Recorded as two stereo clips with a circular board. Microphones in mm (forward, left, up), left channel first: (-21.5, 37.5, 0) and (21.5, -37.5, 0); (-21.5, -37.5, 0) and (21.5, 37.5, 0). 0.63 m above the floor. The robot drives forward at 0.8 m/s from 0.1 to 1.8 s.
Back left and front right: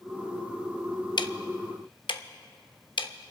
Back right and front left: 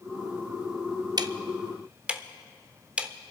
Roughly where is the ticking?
Left.